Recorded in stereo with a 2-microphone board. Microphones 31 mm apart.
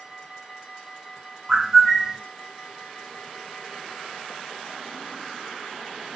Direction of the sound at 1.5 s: 15° right (ahead or behind).